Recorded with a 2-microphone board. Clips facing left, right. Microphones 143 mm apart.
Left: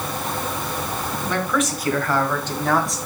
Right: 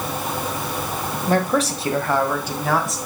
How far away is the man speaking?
About 1.4 m.